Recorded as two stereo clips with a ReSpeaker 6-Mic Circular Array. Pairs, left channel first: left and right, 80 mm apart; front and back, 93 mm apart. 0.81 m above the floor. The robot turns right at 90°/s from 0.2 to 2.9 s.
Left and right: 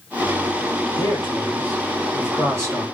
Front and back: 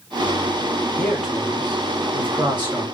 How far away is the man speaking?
About 2 m.